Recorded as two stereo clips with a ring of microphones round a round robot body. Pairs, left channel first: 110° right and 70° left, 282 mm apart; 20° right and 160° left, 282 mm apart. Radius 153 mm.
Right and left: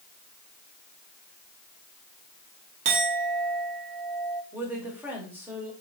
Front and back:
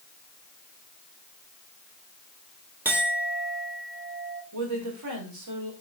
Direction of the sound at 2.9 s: 75° left.